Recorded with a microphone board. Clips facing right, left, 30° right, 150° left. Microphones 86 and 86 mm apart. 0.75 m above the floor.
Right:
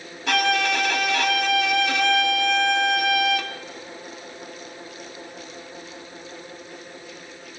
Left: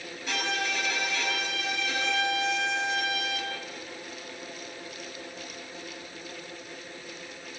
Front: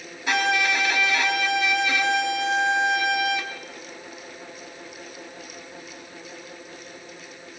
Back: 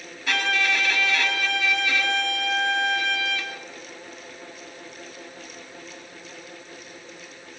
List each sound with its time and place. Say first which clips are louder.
0.3 s a violin: right 10 dB, front 2 dB; 100° right, 3 m